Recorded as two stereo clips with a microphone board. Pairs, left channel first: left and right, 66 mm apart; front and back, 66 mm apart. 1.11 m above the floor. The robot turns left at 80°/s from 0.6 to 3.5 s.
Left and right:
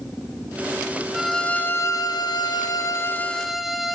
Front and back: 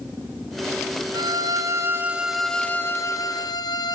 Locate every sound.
1.1 s a violin: 170° right, 0.6 m; by 4.0 s straight ahead, 0.6 m